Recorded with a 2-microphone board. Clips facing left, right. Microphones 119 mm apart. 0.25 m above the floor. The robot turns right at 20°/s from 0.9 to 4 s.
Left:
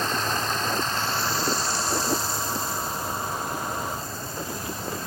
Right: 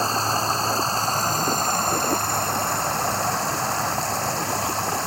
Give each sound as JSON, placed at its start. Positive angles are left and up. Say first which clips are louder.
{"t": 0.0, "sound": "running water", "louder": "right 4 dB", "azimuth_deg": -145}